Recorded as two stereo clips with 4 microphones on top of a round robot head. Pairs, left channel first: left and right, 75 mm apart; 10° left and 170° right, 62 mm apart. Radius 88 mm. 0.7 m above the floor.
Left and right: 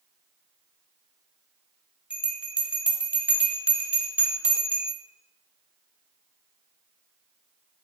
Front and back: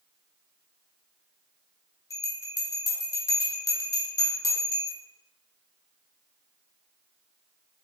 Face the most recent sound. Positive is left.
turn(degrees=-15)